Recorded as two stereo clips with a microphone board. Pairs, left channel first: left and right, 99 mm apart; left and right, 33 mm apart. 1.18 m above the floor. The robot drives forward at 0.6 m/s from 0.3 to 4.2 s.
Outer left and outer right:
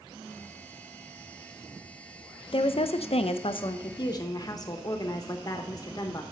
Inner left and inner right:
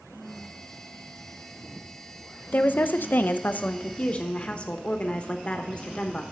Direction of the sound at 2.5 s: 60° left (ahead or behind).